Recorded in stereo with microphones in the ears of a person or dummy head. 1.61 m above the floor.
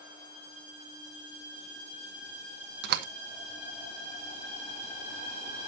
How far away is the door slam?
About 0.9 m.